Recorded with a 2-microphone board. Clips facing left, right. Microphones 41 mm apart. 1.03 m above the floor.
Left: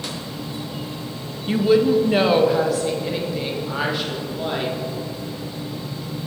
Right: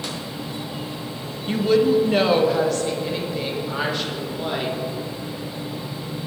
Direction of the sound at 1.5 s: 10° left (ahead or behind).